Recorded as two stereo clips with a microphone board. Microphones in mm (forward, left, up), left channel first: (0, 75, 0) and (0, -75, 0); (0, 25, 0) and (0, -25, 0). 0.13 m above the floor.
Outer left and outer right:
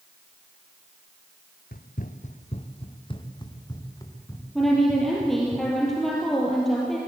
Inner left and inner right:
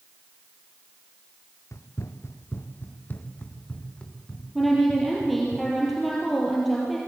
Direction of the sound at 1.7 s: 75° left (ahead or behind).